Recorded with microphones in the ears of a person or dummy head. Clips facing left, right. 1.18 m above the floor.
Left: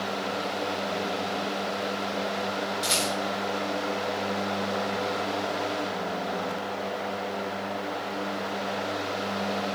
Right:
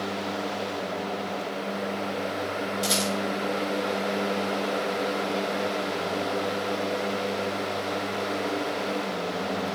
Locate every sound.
2.8 s a rattle: centre (ahead or behind), 5.5 m